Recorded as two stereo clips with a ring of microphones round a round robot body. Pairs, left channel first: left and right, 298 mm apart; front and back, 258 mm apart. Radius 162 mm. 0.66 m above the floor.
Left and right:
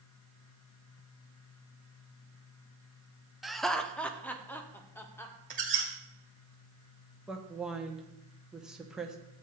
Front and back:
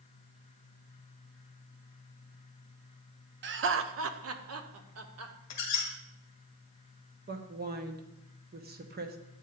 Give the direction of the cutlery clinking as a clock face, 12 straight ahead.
I don't hear cutlery clinking.